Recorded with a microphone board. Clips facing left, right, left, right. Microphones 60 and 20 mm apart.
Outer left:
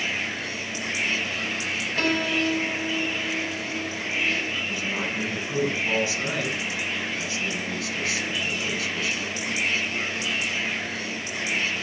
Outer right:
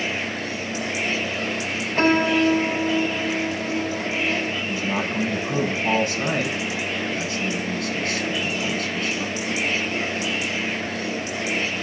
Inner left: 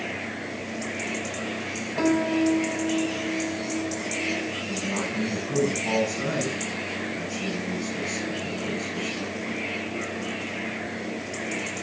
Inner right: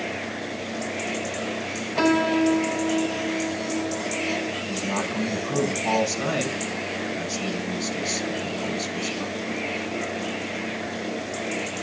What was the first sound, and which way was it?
A piano, 35° right (ahead or behind).